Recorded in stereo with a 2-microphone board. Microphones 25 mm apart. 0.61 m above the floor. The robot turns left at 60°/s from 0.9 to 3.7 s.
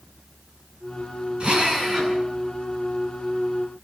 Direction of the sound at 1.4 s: 135° right.